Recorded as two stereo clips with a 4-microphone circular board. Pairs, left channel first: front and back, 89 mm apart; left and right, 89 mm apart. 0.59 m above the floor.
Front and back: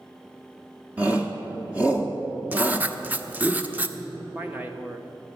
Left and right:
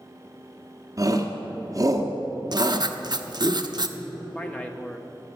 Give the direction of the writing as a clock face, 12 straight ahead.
4 o'clock.